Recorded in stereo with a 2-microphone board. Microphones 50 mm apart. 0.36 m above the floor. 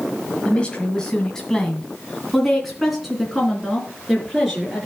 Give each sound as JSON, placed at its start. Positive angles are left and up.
{"t": 0.5, "sound": "a woman speaking", "side_deg": 25, "distance_m": 1.6}